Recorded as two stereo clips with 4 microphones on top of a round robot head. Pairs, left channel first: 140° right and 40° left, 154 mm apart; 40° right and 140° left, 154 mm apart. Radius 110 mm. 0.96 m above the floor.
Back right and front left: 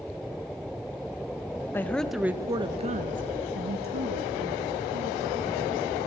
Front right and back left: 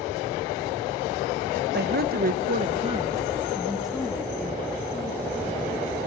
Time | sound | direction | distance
1.7 | a woman speaking | 145° left | 1.0 m